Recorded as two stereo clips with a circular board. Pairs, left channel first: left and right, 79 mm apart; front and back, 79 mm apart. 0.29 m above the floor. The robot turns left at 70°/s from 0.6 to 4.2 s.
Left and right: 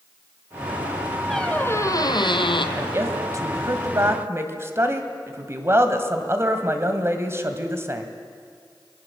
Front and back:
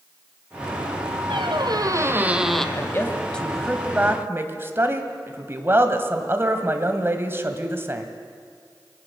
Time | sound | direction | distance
1.3 | a squeak | straight behind | 1.4 m
2.8 | a woman speaking | 30° right | 2 m